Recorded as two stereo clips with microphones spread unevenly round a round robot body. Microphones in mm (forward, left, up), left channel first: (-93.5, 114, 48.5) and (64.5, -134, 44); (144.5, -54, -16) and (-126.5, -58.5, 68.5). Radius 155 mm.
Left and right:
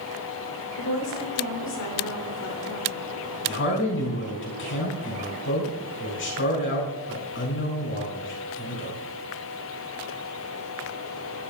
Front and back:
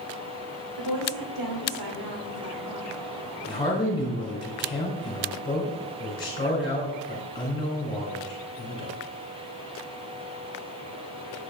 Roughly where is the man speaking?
Left.